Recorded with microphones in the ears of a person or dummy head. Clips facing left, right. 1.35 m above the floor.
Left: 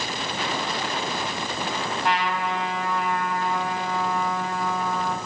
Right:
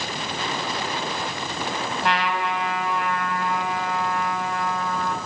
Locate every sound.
2.0 s a trumpet: 60° right (ahead or behind), 6.5 m